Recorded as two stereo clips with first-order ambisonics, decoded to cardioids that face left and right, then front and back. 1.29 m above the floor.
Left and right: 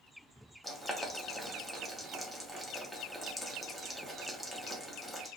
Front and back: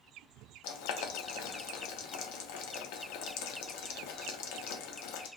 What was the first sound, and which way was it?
Boiling, 5° left.